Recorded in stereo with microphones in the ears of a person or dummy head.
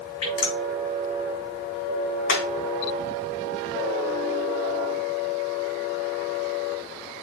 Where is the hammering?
70° left (ahead or behind), 4.5 m.